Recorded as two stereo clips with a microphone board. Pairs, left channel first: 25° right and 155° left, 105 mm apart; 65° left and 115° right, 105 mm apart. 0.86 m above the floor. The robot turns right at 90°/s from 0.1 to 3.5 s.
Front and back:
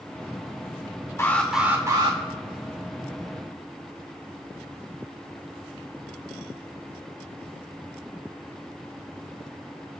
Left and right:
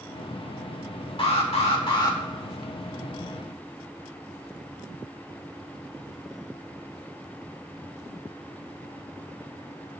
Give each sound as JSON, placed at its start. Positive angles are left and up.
{"t": 1.2, "sound": "an alarm", "azimuth_deg": 40, "distance_m": 2.0}